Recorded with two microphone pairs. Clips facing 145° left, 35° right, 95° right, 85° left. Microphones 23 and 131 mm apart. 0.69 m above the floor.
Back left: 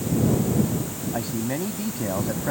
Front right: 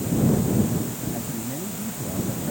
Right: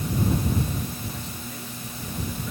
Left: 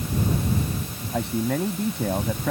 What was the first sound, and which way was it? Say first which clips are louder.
A man speaking: back left 4 dB, left 13 dB; 100° left.